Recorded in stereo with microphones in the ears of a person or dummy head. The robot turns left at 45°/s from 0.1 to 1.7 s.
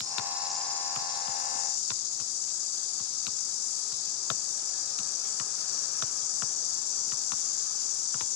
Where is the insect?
160° right, 2 m; by 8.4 s 125° left, 2 m.